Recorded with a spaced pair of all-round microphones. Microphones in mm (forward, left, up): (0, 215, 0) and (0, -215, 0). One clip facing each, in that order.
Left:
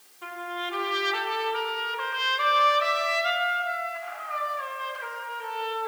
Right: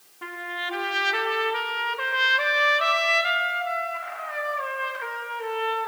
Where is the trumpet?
75° right (ahead or behind), 2 m.